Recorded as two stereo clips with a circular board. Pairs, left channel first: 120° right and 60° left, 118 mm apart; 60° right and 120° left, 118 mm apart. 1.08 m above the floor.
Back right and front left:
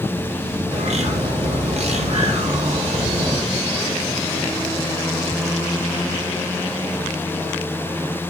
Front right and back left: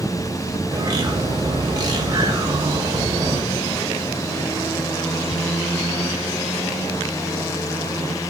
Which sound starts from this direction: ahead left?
A bird, at 0.7 s.